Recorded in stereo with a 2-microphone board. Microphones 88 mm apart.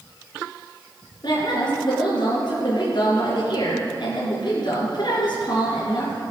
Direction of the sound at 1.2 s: 55° left (ahead or behind).